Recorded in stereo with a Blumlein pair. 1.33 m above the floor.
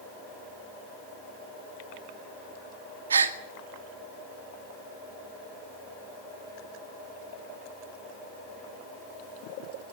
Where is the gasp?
70° right, 2 m.